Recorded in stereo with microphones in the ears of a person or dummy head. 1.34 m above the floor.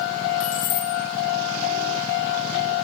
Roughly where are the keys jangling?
Left.